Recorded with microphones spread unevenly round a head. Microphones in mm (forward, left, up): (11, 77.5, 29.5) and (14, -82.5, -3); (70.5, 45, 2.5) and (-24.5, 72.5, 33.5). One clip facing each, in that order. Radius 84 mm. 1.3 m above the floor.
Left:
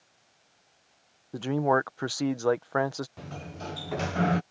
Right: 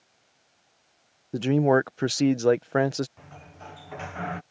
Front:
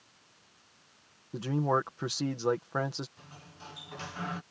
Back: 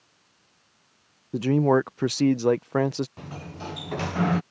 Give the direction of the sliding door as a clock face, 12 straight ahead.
7 o'clock.